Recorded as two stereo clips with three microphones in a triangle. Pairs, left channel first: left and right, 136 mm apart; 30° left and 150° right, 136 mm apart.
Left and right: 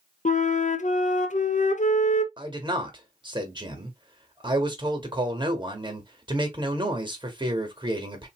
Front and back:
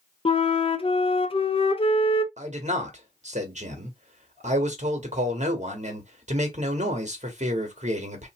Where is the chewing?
I don't hear chewing.